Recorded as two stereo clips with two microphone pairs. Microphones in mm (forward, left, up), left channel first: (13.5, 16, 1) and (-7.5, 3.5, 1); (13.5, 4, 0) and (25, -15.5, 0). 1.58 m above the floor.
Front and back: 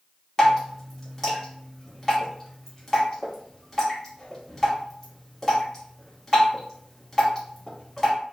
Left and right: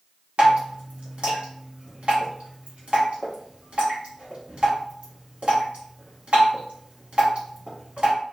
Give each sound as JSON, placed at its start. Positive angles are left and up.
{"t": 0.4, "sound": "dripping", "azimuth_deg": -40, "distance_m": 1.0}